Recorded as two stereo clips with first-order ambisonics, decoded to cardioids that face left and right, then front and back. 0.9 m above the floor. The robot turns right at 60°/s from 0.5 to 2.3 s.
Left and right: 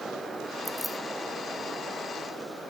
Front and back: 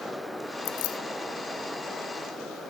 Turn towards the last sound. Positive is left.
turn(degrees=90)